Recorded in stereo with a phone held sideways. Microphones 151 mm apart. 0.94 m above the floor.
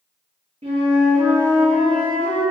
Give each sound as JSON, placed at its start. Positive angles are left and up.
{"t": 0.6, "sound": "a flute", "side_deg": -45, "distance_m": 1.1}